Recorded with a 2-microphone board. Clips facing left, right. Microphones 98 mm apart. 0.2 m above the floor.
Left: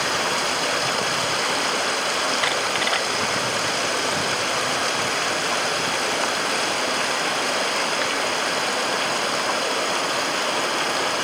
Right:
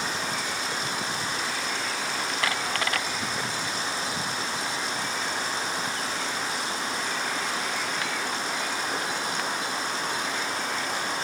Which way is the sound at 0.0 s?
60° left (ahead or behind).